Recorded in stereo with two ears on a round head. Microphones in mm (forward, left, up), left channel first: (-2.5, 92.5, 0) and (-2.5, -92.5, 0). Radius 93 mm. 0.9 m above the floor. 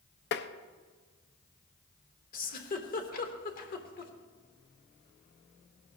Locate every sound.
0.3 s tapping: 55° left (ahead or behind), 0.6 m
2.3 s a giggle: 45° left (ahead or behind), 1.1 m